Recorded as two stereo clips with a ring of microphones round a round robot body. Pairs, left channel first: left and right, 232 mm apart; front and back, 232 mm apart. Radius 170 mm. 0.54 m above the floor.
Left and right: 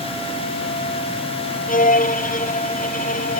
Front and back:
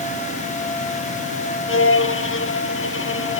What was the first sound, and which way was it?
A violin, 35° left.